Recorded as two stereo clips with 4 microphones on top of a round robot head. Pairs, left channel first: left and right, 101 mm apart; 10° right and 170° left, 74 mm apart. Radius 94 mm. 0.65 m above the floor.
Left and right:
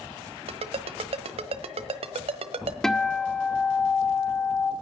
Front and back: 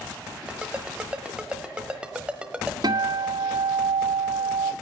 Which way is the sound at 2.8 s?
175° left.